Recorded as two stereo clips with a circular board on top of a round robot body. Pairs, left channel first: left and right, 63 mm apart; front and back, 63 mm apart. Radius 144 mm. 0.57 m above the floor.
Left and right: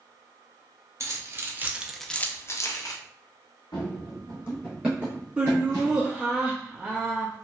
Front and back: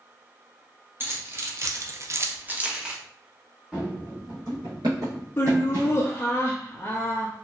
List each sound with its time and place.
1.0 s keys jangling: 125° right, 0.9 m; by 3.0 s 105° left, 0.8 m
3.7 s running footsteps: 105° left, 0.7 m; by 6.1 s 120° right, 0.9 m
5.4 s laughter: 25° right, 0.7 m